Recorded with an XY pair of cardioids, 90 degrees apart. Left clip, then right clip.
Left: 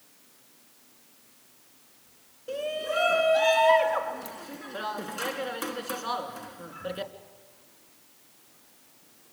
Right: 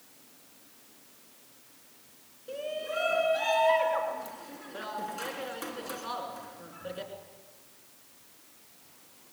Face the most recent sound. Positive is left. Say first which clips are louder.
# left 4 dB
turn(degrees=55)